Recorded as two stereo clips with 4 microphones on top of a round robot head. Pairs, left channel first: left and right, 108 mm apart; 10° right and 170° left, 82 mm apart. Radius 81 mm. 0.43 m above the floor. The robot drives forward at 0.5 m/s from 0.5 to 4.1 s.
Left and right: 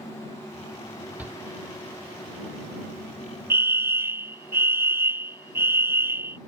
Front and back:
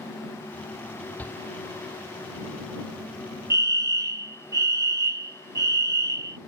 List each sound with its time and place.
1.2 s a shout: 40° right; by 1.4 s 45° right
3.5 s a fire alarm: 150° right; by 6.4 s 155° right